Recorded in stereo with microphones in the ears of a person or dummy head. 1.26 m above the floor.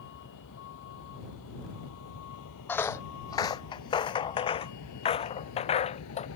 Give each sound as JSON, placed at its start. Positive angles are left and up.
{"t": 0.0, "sound": "a vehicle", "side_deg": 60}
{"t": 2.7, "sound": "footsteps", "side_deg": 10}